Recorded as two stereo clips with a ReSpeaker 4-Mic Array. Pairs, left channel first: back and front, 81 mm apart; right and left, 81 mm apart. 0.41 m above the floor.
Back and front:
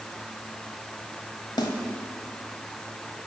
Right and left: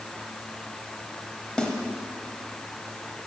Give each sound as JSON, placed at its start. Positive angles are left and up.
{"t": 1.6, "sound": "a snare drum", "azimuth_deg": -170, "distance_m": 1.2}